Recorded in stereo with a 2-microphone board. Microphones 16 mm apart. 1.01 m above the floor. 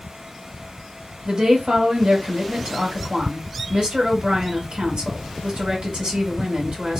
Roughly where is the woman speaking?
Right.